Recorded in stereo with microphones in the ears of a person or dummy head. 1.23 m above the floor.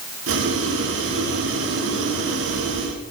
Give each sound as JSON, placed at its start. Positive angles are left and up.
{"t": 0.3, "sound": "boiling", "side_deg": -65, "distance_m": 2.5}